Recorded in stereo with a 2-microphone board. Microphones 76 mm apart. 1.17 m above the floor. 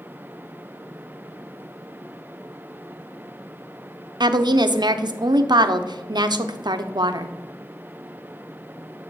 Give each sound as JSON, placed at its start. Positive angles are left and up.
{"t": 4.2, "sound": "a woman speaking", "side_deg": -70, "distance_m": 0.5}